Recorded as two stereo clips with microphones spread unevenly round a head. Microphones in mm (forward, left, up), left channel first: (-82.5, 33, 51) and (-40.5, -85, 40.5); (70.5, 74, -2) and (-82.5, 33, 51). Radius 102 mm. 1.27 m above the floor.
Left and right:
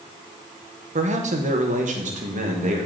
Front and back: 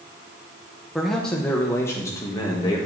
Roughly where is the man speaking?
Right.